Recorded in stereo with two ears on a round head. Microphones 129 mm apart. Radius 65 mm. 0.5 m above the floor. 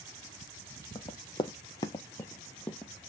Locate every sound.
0.9 s running footsteps: 25° left (ahead or behind), 0.8 m; by 2.9 s 5° left (ahead or behind), 0.8 m